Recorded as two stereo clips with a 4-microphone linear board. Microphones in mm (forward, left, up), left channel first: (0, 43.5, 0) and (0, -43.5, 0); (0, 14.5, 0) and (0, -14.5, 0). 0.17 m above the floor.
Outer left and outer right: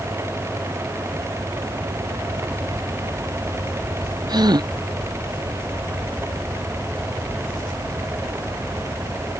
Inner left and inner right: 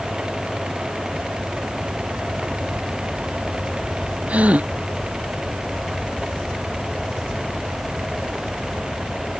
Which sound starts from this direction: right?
A gasp, at 4.3 s.